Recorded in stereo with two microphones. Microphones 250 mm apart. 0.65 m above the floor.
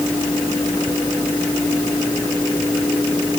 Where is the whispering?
No whispering in this recording.